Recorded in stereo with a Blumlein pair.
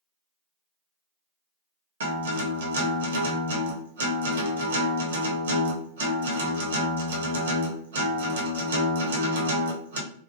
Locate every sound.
2.0 s a guitar: 65° right, 0.8 m